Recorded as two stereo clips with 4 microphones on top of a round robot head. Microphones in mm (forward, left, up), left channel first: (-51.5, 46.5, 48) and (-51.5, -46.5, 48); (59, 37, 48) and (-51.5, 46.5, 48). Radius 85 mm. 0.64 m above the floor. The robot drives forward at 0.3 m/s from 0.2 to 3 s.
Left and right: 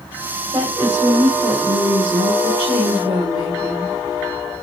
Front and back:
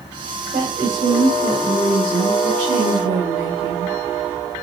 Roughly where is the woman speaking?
Behind right.